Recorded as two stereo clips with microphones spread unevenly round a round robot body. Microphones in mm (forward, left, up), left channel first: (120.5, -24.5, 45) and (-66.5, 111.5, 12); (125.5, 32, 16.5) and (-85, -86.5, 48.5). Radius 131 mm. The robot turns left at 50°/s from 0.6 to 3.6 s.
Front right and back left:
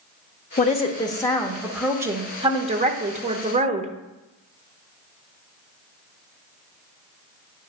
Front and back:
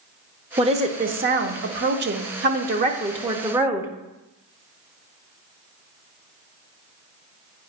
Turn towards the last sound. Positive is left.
turn(degrees=125)